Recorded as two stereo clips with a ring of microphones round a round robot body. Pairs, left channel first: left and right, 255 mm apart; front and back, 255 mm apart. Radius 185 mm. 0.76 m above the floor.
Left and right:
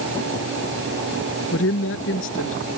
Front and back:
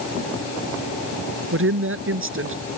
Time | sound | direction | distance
1.5 | a woman speaking | 145° left | ?